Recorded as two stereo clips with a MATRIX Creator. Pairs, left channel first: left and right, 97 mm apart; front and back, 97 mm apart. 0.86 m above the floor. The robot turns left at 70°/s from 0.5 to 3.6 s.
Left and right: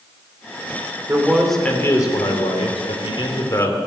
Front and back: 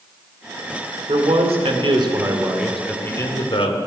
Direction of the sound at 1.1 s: 155° right.